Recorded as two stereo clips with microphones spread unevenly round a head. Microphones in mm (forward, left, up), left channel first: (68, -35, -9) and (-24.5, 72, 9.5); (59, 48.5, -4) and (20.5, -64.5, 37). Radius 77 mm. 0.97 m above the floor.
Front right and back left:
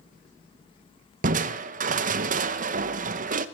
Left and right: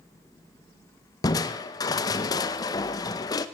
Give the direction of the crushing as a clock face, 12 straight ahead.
8 o'clock.